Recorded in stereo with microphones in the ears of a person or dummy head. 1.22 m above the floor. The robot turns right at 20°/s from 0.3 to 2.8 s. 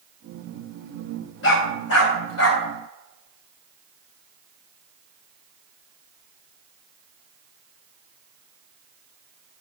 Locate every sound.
1.4 s a dog barking: 75° left (ahead or behind), 3.5 m